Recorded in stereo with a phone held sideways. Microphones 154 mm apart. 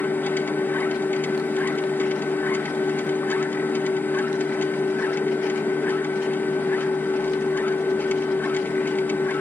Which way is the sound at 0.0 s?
15° left (ahead or behind).